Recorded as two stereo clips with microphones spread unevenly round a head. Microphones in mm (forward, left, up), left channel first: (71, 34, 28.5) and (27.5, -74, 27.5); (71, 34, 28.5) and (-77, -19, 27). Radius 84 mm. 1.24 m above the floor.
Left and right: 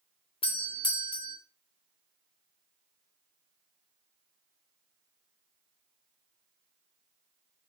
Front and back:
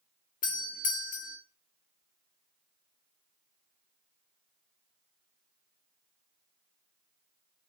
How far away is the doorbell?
About 1.7 m.